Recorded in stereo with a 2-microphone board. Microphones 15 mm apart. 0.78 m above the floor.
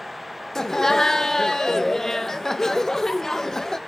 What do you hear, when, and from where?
0.6 s laughter: 30° left (ahead or behind), 0.7 m